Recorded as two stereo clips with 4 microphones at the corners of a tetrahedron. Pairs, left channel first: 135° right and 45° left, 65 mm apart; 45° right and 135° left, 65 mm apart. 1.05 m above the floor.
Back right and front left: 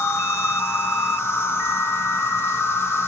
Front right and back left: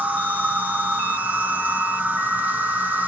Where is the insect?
170° right, 0.8 m.